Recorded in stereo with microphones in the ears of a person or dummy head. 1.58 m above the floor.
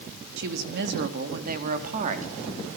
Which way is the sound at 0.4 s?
70° right (ahead or behind).